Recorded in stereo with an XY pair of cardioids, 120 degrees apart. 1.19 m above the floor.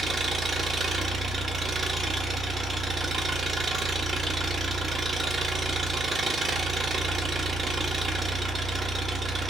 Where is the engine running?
35° right, 0.8 m.